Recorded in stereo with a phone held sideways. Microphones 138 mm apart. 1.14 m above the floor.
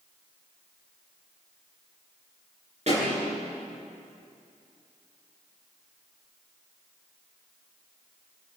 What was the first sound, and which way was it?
A pop, 55° right (ahead or behind).